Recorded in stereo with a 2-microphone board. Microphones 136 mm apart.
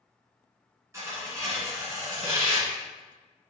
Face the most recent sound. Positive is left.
turn(degrees=-25)  # may be behind; listen again after turning